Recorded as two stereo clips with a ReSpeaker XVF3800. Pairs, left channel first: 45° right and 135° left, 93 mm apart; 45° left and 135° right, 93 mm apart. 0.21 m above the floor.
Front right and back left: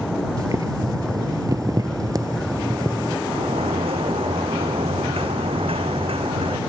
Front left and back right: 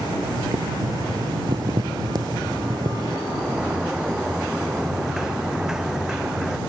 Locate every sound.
0.4 s boiling: 175° right
3.3 s a sliding door: 140° left